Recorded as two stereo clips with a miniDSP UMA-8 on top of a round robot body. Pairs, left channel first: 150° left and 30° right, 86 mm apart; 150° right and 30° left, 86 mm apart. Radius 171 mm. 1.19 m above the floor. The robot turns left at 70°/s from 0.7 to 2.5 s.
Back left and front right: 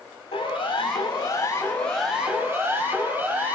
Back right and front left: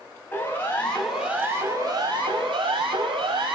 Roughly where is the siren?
Behind left.